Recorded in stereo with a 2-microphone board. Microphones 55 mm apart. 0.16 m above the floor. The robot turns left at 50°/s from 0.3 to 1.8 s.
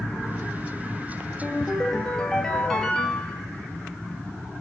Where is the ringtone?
15° right (ahead or behind), 1.7 m; by 3.4 s 5° left (ahead or behind), 1.7 m.